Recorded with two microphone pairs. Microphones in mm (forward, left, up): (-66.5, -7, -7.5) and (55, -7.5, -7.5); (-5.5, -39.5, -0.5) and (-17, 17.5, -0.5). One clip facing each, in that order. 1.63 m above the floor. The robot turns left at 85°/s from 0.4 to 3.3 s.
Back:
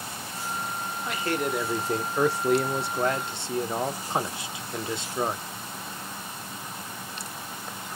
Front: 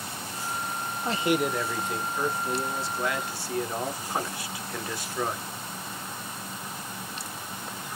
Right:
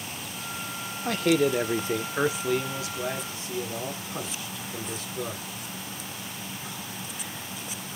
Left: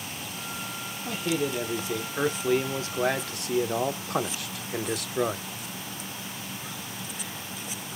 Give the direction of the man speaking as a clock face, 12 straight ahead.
2 o'clock.